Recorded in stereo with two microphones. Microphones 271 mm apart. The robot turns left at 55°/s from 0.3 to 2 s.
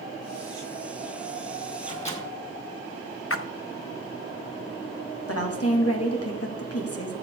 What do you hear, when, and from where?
1.8 s a microwave: 35° left (ahead or behind), 2 m; by 2.2 s 25° left (ahead or behind), 2 m
3.3 s a splash: 60° left (ahead or behind), 0.5 m
5.3 s a woman speaking: 65° left (ahead or behind), 1.7 m